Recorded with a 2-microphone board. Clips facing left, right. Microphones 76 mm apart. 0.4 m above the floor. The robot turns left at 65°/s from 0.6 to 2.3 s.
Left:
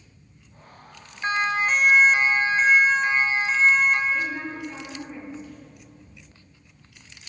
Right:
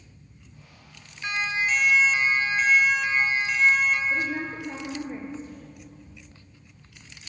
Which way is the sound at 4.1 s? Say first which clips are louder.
Even; 35° right (ahead or behind).